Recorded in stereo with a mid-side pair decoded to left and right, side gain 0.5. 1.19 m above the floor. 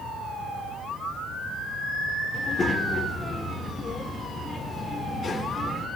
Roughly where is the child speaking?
Ahead left.